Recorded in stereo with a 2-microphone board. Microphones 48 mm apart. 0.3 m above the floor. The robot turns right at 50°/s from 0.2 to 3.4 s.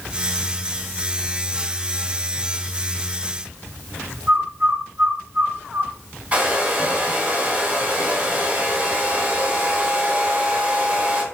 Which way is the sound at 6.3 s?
25° right (ahead or behind).